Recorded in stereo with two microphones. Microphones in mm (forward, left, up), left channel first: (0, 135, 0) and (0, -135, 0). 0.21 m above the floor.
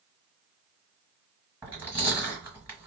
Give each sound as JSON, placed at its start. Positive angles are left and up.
{"t": 1.6, "sound": "chewing", "side_deg": -5, "distance_m": 2.5}